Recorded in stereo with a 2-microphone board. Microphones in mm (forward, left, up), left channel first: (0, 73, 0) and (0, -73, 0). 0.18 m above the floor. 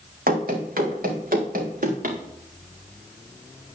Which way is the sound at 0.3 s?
85° right.